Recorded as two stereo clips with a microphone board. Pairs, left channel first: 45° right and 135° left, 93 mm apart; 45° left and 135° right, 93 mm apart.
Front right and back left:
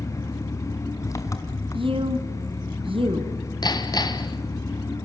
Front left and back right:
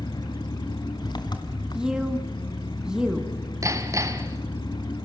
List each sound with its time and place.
0.0 s an engine running: 10° left, 3 m
1.7 s a woman speaking: 145° left, 3 m
3.6 s hammering: 85° right, 2.0 m